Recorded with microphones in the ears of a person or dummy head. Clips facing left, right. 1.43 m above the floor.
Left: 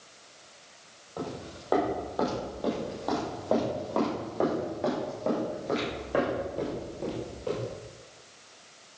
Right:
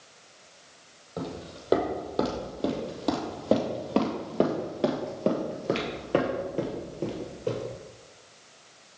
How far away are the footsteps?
About 3 m.